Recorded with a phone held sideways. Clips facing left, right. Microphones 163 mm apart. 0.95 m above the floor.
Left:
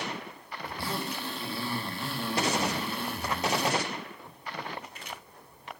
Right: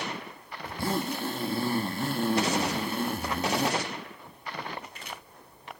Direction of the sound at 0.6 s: 45° right (ahead or behind).